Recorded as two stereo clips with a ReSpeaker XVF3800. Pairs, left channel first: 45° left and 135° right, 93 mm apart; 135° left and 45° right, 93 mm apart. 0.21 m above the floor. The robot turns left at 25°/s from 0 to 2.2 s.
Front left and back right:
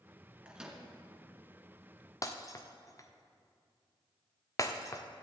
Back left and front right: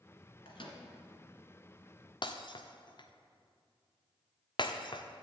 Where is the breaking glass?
100° left, 1.5 m.